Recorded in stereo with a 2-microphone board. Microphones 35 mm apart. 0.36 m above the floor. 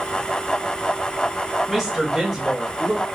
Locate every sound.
1.7 s a woman speaking: 5° right (ahead or behind), 1.6 m; by 3.0 s 25° right (ahead or behind), 1.2 m